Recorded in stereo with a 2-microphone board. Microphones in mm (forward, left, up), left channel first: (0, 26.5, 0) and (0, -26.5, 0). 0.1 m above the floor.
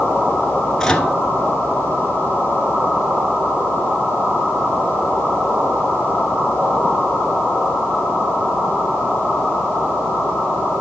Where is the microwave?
10° left (ahead or behind), 1.1 m.